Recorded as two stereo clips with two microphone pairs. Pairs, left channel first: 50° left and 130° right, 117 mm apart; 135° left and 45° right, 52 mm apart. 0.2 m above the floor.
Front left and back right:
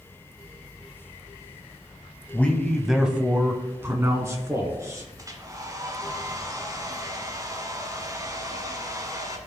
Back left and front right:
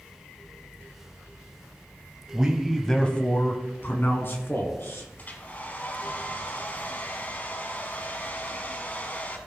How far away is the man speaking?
About 1.0 m.